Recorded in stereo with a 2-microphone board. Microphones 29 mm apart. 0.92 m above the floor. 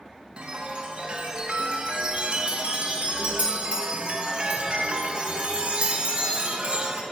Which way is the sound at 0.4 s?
40° right (ahead or behind).